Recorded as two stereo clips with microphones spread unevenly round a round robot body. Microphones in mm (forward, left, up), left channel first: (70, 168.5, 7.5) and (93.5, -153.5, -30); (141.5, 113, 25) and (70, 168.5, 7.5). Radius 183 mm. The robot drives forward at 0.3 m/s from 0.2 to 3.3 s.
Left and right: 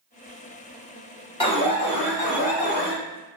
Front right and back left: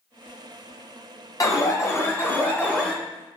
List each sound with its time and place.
1.4 s an alarm: 20° left, 0.8 m; by 3.0 s 65° left, 0.6 m